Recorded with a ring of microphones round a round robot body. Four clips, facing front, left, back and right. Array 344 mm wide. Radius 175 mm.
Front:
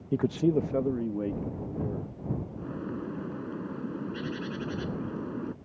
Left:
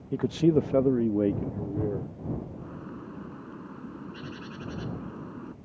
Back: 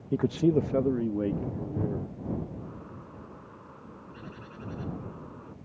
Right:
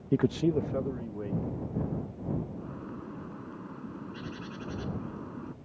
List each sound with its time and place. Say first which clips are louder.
0.1 s a man speaking: left 3 dB, back 1 dB; 80° right; by 2.1 s 95° left
2.6 s a bird: even, front 8 dB; 5° left